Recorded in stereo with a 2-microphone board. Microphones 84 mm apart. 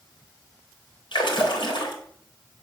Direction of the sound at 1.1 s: 70° left (ahead or behind).